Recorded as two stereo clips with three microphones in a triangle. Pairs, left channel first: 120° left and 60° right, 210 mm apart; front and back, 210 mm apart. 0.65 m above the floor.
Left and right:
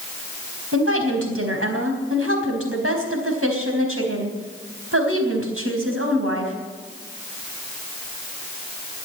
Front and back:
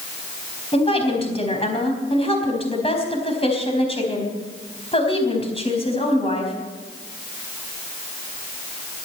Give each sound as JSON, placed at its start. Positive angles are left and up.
{"t": 0.7, "sound": "a woman speaking", "azimuth_deg": -65, "distance_m": 4.0}